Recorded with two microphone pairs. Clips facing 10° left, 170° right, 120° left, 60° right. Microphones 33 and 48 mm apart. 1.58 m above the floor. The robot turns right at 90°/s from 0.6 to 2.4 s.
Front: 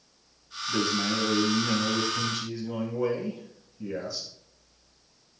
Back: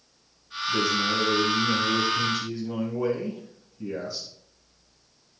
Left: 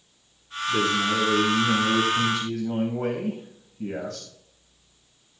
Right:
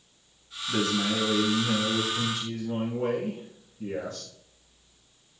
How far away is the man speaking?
About 3 m.